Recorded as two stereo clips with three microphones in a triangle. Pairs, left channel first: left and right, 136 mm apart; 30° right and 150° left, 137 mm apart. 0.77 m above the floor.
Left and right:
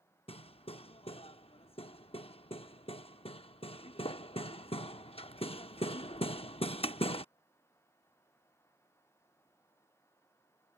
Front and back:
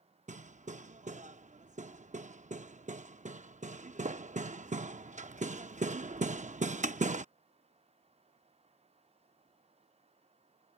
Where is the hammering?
130° left.